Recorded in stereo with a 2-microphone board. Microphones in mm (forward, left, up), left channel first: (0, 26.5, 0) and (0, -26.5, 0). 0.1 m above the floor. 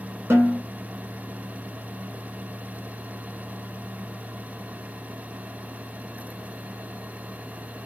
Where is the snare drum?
55° right (ahead or behind), 1.3 m.